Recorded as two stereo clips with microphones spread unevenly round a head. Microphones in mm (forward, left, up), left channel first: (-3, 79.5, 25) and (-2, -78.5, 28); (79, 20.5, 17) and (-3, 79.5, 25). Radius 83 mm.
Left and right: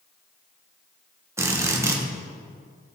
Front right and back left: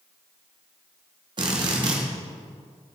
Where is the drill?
160° right, 1.4 m.